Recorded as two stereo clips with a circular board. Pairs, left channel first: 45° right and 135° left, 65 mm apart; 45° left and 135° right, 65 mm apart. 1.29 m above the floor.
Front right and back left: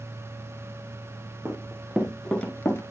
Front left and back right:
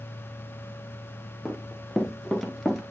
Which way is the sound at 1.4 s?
135° left.